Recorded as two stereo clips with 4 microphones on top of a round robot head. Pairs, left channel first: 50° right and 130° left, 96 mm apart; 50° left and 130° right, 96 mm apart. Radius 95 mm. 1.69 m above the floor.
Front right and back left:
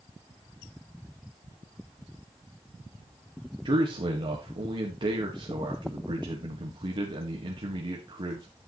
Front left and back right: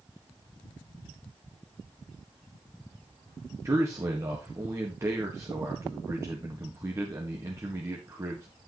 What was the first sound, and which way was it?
A man speaking, 170° left.